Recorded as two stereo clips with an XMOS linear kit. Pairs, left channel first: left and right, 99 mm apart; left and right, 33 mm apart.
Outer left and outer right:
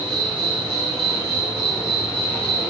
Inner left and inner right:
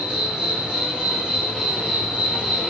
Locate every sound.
0.0 s an insect: 50° right (ahead or behind), 1.3 m